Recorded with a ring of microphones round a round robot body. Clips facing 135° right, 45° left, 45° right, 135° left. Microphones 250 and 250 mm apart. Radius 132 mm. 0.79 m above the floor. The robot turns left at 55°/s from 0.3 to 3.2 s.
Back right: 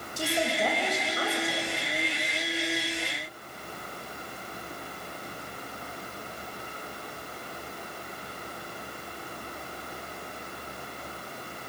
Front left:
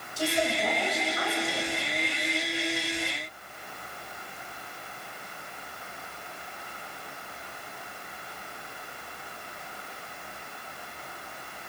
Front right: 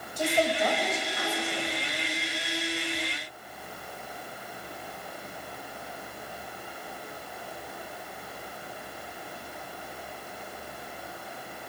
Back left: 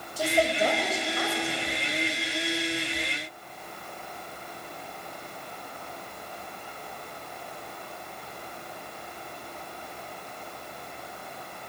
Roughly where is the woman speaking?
Behind right.